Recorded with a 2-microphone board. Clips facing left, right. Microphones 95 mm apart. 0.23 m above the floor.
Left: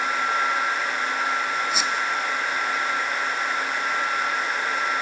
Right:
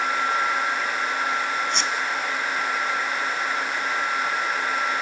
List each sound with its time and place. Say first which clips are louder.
1.7 s a squeak: even; 5° left (ahead or behind), 1.1 m